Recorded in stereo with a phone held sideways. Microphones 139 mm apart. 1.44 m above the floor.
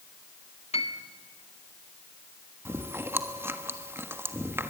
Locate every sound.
0.7 s a piano: 45° left (ahead or behind), 1.8 m
2.6 s chewing: 15° right (ahead or behind), 1.3 m